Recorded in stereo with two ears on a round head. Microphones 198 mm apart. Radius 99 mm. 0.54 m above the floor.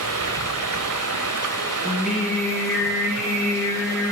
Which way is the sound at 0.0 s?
75° right (ahead or behind).